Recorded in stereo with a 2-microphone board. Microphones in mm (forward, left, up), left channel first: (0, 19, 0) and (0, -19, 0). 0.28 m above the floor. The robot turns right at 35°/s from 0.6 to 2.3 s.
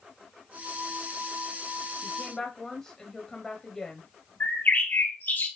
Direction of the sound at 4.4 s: 60° left (ahead or behind).